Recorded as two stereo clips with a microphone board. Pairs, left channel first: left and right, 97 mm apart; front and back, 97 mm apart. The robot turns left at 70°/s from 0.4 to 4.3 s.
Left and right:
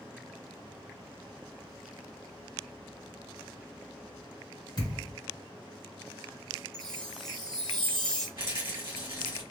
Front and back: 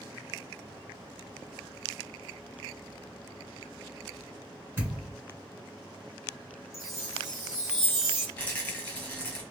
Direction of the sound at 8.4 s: 70° right.